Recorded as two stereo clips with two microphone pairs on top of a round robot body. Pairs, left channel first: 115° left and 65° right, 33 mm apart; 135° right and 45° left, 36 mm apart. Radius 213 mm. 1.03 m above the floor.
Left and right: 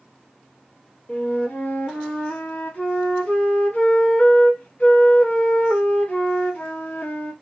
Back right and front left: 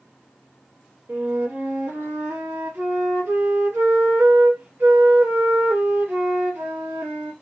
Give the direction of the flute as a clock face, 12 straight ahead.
10 o'clock.